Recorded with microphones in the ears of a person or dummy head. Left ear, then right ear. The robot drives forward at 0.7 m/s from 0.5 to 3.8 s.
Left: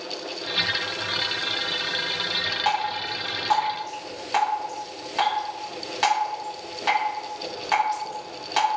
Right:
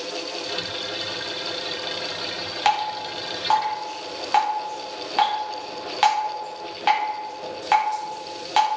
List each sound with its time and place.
2.6 s dripping: 50° right (ahead or behind), 0.7 m; by 8.7 s 25° right (ahead or behind), 1.3 m